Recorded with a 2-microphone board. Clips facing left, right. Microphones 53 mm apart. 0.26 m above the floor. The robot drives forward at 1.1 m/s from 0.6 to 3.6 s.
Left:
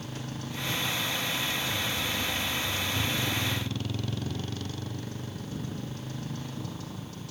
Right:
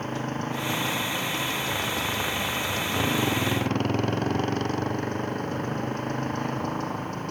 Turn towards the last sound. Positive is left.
turn(degrees=-50)  # may be behind; listen again after turning